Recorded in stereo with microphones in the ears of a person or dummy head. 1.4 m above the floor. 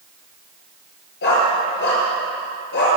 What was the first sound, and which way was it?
A dog barking, 65° left (ahead or behind).